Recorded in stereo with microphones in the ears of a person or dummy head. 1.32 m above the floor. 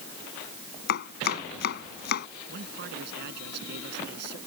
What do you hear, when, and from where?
0.9 s chopping: 60° left (ahead or behind)
2.5 s a man speaking: 60° right (ahead or behind)